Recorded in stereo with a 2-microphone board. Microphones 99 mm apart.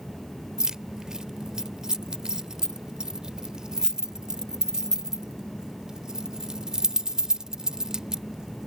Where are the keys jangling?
5° right (ahead or behind).